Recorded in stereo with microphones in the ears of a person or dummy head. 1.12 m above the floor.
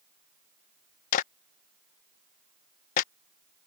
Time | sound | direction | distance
1.1 | a clap | 45° left (ahead or behind) | ?